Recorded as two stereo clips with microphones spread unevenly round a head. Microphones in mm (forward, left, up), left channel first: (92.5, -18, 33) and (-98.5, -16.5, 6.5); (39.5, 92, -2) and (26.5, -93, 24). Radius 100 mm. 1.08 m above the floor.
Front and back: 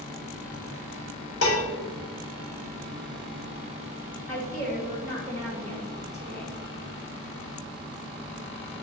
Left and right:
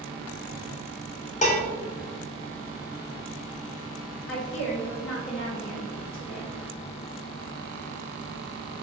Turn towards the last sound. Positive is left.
turn(degrees=80)